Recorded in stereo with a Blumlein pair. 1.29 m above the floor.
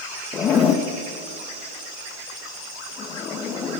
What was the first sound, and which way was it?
A zipper, 25° left.